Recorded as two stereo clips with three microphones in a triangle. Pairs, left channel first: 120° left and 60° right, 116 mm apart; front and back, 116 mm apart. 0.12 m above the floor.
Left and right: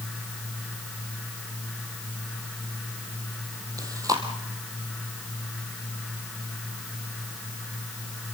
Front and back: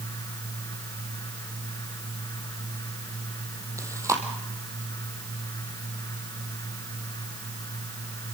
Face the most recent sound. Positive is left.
turn(degrees=-120)